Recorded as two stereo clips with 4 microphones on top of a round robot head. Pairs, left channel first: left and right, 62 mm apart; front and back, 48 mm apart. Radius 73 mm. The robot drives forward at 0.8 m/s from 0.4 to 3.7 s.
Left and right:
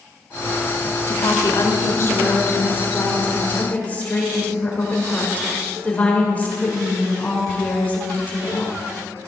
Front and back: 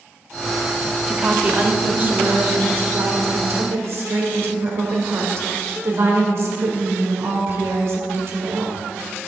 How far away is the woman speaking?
About 1.5 m.